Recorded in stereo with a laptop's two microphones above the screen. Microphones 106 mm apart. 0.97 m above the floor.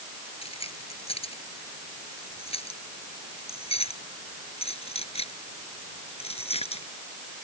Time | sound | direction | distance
0.4 | keys jangling | 75° left (ahead or behind) | ?